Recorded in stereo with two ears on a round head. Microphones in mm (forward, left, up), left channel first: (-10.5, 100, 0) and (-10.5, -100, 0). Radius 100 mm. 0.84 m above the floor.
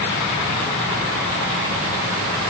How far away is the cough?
No cough in this recording.